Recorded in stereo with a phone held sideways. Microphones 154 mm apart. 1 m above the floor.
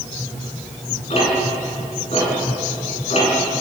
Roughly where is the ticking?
Left.